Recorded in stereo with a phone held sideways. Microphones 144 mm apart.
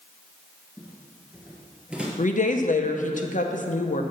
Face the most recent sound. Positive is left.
turn(degrees=60)  # may be behind; listen again after turning